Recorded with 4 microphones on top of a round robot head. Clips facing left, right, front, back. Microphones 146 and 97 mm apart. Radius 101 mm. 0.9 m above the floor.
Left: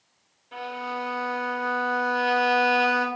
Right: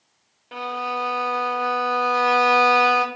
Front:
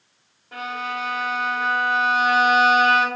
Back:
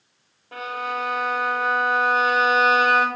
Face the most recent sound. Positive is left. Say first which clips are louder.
# right 4 dB, back 1 dB
turn(degrees=-110)